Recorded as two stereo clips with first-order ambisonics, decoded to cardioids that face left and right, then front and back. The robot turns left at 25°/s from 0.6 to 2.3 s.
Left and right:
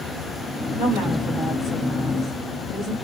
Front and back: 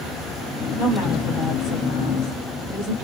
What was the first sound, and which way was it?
A woman speaking, 60° left.